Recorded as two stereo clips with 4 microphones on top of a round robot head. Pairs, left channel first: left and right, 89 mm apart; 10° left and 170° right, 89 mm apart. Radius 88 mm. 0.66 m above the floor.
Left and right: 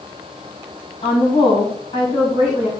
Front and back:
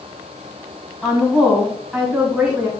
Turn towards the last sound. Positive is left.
turn(degrees=100)